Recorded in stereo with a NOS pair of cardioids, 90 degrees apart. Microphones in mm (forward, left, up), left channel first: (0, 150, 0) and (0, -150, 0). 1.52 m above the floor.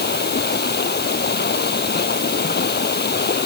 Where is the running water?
35° left.